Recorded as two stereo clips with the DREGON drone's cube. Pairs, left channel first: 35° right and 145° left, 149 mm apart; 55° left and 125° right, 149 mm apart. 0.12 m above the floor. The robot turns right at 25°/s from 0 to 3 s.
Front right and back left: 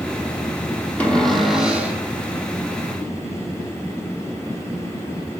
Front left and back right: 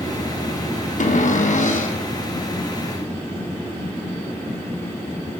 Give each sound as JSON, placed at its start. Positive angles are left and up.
{"t": 1.0, "sound": "a cupboard door", "azimuth_deg": 45, "distance_m": 1.5}